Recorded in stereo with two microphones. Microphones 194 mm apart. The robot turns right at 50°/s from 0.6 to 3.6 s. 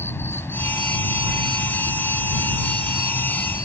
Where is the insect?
10° left; by 3.7 s 160° left.